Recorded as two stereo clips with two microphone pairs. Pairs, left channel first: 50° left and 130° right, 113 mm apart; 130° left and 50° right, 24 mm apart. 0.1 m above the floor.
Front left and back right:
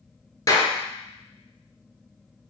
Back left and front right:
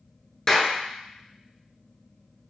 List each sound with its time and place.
0.5 s a clap: 75° left, 1.0 m